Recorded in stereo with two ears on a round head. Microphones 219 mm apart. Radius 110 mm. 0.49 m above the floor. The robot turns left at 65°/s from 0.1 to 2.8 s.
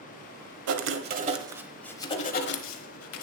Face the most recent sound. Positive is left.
turn(degrees=110)